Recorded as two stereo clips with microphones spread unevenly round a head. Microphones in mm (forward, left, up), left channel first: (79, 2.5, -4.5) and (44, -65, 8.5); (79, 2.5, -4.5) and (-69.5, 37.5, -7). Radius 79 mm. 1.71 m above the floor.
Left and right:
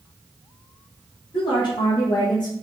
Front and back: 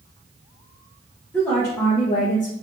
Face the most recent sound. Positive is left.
turn(degrees=25)